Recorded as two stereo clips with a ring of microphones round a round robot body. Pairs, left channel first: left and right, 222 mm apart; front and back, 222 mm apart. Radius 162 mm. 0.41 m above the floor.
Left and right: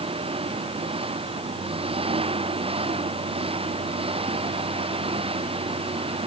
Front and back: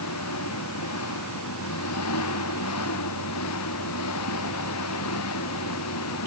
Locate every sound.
0.0 s an engine running: 25° right